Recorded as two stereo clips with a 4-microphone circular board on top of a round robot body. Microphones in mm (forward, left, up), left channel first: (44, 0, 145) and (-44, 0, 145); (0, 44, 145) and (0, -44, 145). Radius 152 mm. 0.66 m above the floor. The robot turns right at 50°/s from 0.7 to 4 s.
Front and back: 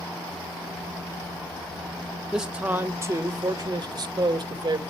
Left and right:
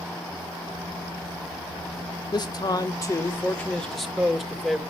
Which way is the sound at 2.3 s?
95° left.